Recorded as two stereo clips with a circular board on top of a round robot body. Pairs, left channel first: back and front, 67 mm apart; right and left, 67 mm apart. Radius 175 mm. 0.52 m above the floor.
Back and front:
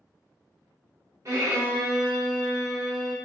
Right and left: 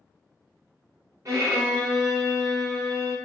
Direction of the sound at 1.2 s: 50° left.